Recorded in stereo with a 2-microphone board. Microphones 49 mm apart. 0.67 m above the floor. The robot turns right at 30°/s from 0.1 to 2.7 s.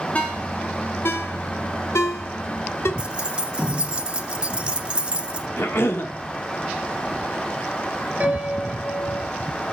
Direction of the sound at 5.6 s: 55° left (ahead or behind).